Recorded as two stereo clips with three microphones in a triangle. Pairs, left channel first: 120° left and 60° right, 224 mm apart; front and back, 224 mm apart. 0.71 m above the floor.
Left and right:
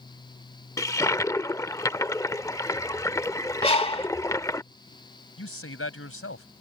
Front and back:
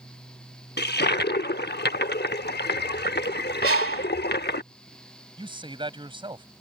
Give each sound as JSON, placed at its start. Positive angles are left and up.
{"t": 0.8, "sound": "a toilet flushing", "azimuth_deg": 45}
{"t": 3.6, "sound": "a bird", "azimuth_deg": 180}
{"t": 5.4, "sound": "a man speaking", "azimuth_deg": 110}